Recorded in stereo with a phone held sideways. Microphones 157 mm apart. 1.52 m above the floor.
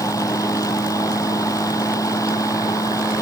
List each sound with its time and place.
0.0 s a fan: 20° left (ahead or behind)